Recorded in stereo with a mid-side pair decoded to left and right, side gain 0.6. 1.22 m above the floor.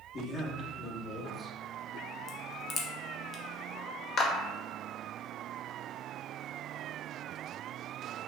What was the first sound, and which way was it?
A man speaking, 45° left.